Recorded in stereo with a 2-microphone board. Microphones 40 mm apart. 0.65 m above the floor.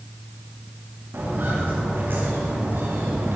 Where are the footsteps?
50° right (ahead or behind), 7 m; by 3.4 s 65° right (ahead or behind), 6.5 m.